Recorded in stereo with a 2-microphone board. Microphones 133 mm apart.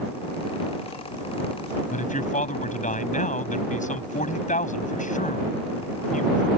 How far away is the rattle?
No rattle in this recording.